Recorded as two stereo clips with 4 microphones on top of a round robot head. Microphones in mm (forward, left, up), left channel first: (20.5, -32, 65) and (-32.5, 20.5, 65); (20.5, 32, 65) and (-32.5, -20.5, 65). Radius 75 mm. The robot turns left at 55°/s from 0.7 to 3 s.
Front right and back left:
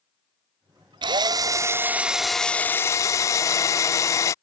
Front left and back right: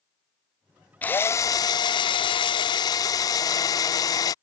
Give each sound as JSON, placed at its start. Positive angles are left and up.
{"t": 1.0, "sound": "a drill", "azimuth_deg": 115}